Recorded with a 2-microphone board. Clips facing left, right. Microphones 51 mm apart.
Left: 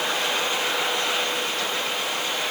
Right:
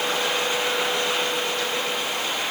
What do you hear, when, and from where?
Only background noise.